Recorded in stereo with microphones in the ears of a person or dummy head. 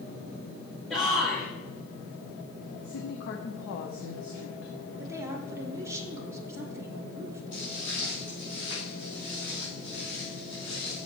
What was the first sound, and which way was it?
A shout, 5° left (ahead or behind).